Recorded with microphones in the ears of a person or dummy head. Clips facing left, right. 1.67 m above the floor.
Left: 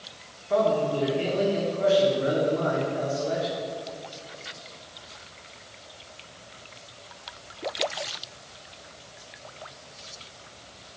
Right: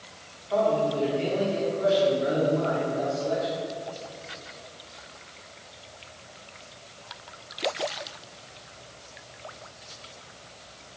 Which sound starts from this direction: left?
A man speaking, at 0.5 s.